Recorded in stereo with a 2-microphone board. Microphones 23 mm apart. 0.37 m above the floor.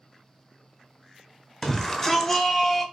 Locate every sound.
1.6 s a shout: 10° left (ahead or behind), 1.4 m; by 2.9 s 5° left (ahead or behind), 1.8 m